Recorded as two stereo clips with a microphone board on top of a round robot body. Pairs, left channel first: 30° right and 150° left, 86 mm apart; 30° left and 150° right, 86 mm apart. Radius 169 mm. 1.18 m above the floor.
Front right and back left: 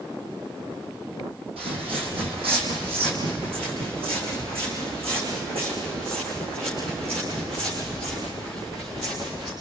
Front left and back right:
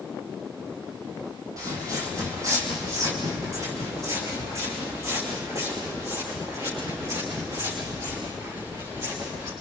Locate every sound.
1.6 s footsteps: 155° left, 4 m; by 9.5 s 150° left, 9.5 m